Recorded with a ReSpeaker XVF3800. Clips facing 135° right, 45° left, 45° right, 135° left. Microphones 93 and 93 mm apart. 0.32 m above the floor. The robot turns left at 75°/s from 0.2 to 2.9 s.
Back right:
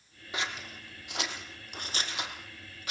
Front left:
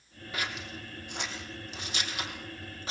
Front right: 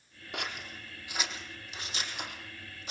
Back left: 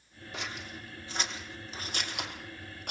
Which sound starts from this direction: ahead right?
Scissors, at 0.3 s.